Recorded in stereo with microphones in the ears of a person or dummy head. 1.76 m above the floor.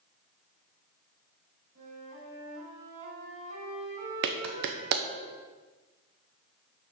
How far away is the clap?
About 0.9 m.